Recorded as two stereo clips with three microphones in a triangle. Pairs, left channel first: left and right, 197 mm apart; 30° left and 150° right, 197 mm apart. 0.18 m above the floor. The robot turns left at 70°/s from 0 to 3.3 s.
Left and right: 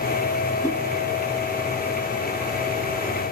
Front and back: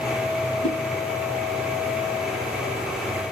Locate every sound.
0.6 s a whoosh: 25° left, 1.3 m; by 0.8 s 15° left, 1.3 m